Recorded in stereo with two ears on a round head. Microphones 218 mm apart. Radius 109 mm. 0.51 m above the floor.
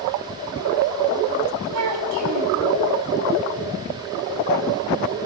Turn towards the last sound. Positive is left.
turn(degrees=-80)